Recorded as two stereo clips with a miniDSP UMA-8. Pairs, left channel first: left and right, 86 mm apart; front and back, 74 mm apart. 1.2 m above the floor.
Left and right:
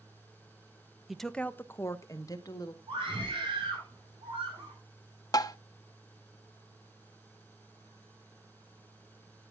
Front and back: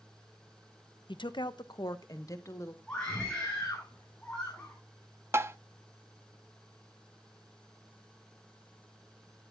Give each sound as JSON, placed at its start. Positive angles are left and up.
{"t": 1.1, "sound": "a woman speaking", "azimuth_deg": -5, "distance_m": 0.7}
{"t": 2.9, "sound": "a scream", "azimuth_deg": -75, "distance_m": 8.0}
{"t": 5.3, "sound": "tapping", "azimuth_deg": 130, "distance_m": 0.7}